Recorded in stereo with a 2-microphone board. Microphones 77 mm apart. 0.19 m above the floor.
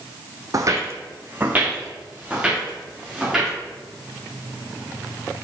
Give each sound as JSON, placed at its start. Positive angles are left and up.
{"t": 0.5, "sound": "footsteps", "side_deg": -50, "distance_m": 0.6}